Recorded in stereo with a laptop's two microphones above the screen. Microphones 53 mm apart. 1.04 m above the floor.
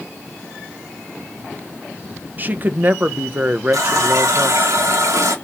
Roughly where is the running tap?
Right.